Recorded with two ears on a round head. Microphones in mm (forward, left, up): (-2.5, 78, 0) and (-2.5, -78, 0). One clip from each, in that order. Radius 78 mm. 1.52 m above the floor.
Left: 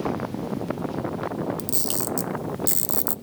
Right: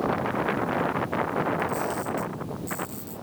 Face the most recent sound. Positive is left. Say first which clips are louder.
# right 3 dB
turn(degrees=70)  # may be behind; listen again after turning